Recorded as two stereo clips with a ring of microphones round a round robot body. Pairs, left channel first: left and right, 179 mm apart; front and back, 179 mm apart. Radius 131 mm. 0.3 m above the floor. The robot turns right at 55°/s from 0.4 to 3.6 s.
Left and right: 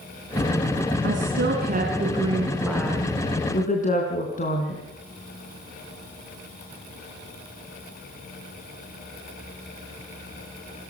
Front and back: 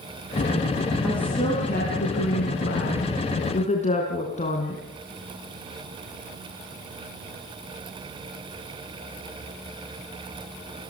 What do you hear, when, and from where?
1.0 s a woman speaking: 90° right, 3.5 m; by 4.8 s 50° left, 3.5 m